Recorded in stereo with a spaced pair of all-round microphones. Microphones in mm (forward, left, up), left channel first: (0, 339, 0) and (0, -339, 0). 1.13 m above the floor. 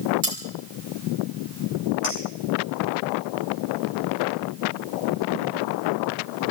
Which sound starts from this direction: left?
A clink, at 2.0 s.